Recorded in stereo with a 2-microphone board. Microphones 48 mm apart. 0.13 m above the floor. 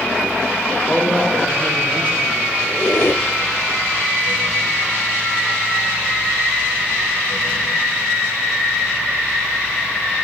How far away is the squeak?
About 0.8 m.